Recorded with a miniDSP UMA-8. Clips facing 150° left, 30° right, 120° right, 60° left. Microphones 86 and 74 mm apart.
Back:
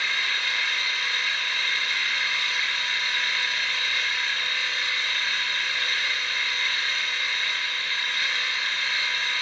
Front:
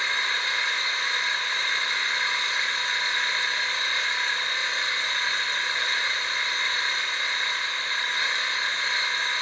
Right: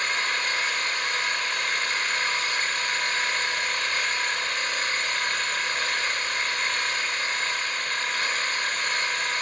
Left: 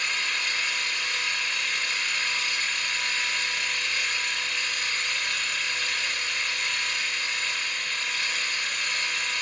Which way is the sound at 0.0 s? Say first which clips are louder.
Front 1 dB, right 3 dB; 90° right.